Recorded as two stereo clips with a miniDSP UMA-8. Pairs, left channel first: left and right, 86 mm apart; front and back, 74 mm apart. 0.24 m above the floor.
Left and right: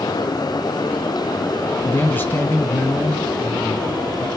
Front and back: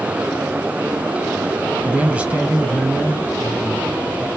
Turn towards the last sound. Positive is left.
turn(degrees=125)